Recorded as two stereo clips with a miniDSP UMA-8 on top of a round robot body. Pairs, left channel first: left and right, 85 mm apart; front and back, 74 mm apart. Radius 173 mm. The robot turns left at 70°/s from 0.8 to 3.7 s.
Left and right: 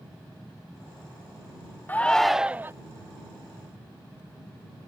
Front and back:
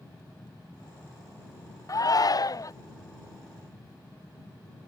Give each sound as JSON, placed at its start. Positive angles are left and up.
{"t": 1.9, "sound": "a shout", "azimuth_deg": 25}